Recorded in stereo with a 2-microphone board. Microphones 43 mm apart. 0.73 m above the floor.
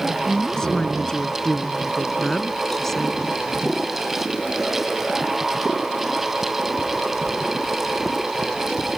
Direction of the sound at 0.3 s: 15° left (ahead or behind).